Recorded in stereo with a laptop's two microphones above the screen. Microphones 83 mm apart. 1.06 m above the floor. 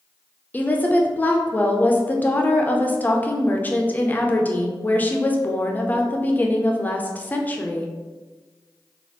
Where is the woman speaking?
20° left (ahead or behind), 0.5 m.